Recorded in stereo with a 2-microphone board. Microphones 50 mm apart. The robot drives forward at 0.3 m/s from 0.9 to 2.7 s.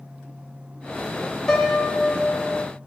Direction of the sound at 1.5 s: 10° left (ahead or behind).